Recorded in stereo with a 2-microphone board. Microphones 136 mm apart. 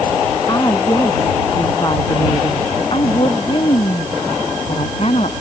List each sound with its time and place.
0.5 s a woman speaking: 25° left (ahead or behind); by 5.3 s 50° left (ahead or behind)